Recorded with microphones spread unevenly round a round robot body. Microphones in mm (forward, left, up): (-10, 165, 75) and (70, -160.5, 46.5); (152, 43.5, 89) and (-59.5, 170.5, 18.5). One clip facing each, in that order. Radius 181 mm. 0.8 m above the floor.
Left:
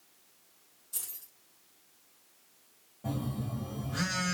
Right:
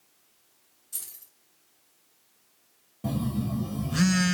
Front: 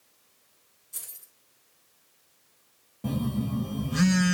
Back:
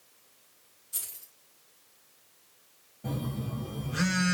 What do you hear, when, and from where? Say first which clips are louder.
0.9 s keys jangling: left 1 dB, back 2 dB; 125° right, 4 m
3.0 s a phone buzzing: right 7 dB, front 7 dB; 40° right, 0.9 m